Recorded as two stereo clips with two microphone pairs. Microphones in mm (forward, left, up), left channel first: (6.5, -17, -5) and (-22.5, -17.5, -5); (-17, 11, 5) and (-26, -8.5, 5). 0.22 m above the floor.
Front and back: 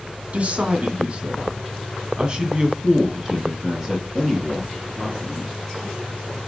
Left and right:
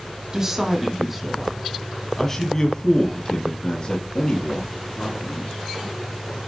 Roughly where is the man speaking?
Behind.